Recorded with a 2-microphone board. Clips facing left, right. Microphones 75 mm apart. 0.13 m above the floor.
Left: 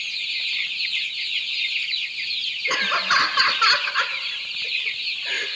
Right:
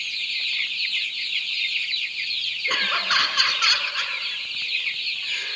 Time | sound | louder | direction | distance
2.7 | laughter | left 3 dB | 10° left (ahead or behind) | 1.6 m